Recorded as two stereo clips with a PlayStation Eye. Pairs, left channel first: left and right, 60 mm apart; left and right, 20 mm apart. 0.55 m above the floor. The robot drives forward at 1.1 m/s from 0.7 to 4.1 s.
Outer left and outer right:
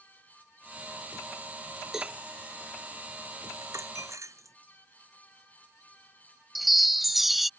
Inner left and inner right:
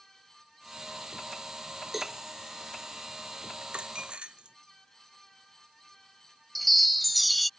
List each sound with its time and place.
1.9 s a cowbell: 5° right (ahead or behind)
3.6 s a dropped coin: 60° right (ahead or behind)
6.5 s a chime: 5° right (ahead or behind)